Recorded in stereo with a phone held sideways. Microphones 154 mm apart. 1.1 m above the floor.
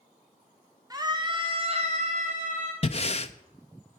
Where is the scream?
25° right (ahead or behind), 1.1 m; by 2.7 s 55° right (ahead or behind), 1.2 m.